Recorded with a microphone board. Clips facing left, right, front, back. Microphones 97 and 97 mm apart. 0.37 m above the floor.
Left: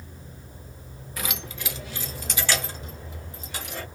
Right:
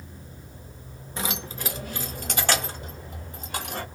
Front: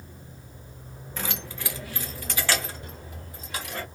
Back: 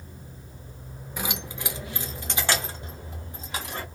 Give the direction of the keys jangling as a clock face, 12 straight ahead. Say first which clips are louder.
Right 3 dB, back 2 dB; 4 o'clock.